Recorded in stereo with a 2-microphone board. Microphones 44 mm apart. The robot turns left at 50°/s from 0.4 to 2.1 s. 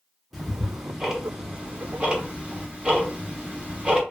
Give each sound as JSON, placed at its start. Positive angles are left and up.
{"t": 0.3, "sound": "ticking", "side_deg": 0, "distance_m": 0.7}